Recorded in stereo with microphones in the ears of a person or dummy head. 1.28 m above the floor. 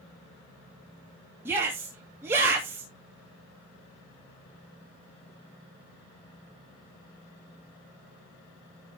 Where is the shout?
15° right (ahead or behind), 2.5 m.